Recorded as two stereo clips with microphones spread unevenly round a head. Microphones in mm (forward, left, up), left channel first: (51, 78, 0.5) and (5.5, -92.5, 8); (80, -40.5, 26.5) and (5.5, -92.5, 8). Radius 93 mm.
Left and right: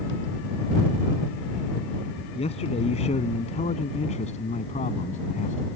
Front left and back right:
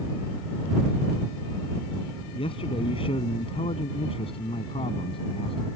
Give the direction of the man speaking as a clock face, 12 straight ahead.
11 o'clock.